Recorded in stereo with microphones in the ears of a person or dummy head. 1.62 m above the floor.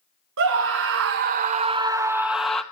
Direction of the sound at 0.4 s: 60° right (ahead or behind).